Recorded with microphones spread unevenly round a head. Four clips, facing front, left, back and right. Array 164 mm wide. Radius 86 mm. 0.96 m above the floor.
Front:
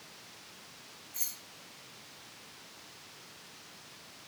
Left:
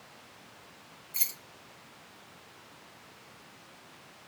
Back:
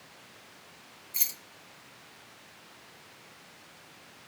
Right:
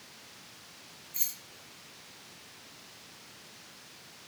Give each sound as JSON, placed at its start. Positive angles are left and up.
{"t": 1.1, "sound": "keys jangling", "azimuth_deg": 160, "distance_m": 0.6}